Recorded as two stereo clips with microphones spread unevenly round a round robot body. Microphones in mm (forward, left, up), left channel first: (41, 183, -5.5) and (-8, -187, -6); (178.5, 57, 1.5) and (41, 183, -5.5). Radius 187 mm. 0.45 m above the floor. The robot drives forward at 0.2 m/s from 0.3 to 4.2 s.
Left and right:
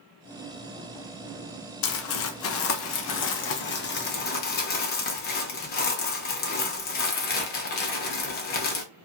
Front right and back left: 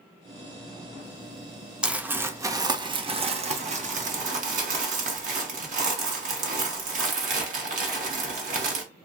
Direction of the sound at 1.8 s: 55° left.